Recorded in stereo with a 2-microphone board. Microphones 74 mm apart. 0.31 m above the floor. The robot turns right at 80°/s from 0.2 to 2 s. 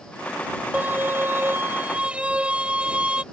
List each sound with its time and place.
0.7 s a violin: 135° right; by 3.2 s 35° right